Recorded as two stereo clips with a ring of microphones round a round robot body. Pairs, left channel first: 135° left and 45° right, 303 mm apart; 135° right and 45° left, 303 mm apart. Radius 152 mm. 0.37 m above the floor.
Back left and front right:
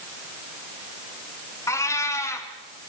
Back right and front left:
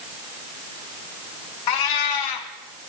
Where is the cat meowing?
145° right, 2.5 m.